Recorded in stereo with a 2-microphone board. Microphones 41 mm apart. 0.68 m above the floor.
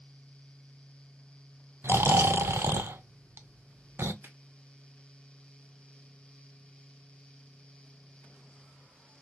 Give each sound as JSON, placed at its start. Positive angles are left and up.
{"t": 1.8, "sound": "snoring", "side_deg": -75, "distance_m": 0.6}
{"t": 4.2, "sound": "a finger snap", "side_deg": -70, "distance_m": 2.5}